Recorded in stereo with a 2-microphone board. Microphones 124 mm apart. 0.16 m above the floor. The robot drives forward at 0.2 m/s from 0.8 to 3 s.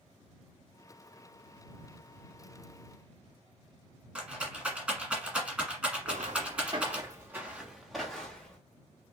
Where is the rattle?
10° right (ahead or behind), 1.1 m.